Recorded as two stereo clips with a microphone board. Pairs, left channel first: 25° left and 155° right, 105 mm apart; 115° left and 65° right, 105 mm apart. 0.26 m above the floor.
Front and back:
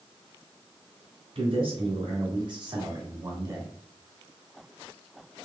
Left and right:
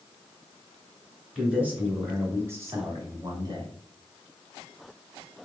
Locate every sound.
1.4 s a man speaking: 145° right, 2 m; by 3.8 s 100° right, 1.8 m